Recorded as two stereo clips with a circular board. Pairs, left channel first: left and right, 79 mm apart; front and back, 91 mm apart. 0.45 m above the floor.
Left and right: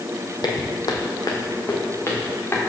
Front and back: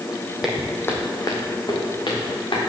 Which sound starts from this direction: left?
Footsteps, at 0.4 s.